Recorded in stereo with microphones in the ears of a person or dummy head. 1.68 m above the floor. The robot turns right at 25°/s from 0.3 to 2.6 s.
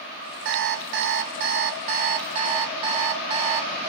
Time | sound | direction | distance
0.5 | an alarm clock | 85° right | 1.5 m